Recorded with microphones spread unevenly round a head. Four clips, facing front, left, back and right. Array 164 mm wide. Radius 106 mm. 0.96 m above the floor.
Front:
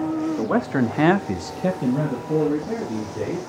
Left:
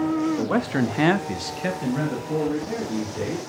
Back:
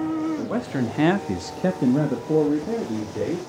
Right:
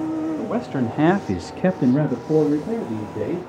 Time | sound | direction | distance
0.4 | a man speaking | 15° left | 1.9 m